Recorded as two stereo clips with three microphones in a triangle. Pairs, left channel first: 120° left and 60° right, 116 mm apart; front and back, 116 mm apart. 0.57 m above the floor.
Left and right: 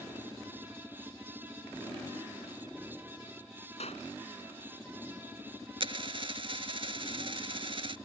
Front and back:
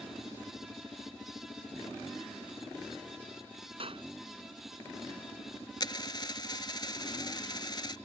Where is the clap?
145° left.